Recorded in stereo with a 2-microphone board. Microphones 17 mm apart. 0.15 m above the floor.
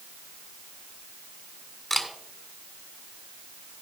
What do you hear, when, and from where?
1.9 s a camera shutter: 5° left (ahead or behind), 1.8 m